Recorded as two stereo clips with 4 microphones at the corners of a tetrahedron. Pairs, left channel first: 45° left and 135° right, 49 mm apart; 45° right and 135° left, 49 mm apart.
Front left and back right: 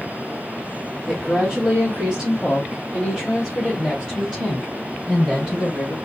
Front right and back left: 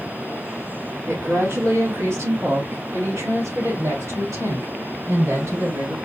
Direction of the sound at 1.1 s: 130° left.